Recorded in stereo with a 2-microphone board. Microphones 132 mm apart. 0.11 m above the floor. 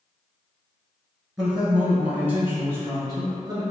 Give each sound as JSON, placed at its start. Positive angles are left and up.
{"t": 1.4, "sound": "a man speaking", "side_deg": -5, "distance_m": 1.4}